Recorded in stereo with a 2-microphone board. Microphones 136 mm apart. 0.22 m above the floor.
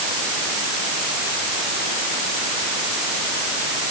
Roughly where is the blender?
No blender in this recording.